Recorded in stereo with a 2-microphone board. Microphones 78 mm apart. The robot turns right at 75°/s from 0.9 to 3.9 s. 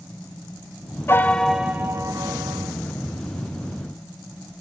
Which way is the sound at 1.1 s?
150° left.